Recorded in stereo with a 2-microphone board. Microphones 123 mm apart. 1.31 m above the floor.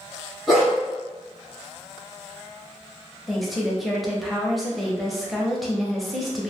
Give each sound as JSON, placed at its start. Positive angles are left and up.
{"t": 0.5, "sound": "a dog barking", "side_deg": 0, "distance_m": 1.0}
{"t": 3.3, "sound": "a woman speaking", "side_deg": 0, "distance_m": 0.6}